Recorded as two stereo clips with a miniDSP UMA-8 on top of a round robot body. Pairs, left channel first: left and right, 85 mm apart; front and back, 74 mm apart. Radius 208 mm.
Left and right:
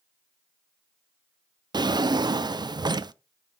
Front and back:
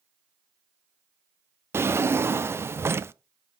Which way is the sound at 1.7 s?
125° right.